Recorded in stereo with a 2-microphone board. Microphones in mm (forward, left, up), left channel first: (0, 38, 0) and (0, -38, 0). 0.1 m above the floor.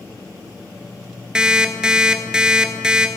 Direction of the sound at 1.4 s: 10° right (ahead or behind).